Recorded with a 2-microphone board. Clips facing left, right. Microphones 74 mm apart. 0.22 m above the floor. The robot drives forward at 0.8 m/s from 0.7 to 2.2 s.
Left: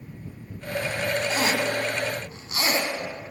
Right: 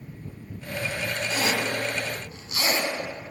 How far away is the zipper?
About 1.4 m.